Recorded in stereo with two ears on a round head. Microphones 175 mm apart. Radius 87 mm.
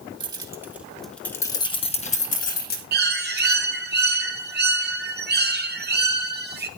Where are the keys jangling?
25° right (ahead or behind), 1.4 m; by 2.8 s 55° left (ahead or behind), 1.6 m.